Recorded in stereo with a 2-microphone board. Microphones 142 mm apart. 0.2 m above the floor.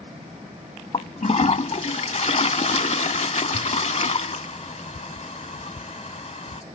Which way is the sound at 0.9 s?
50° left (ahead or behind).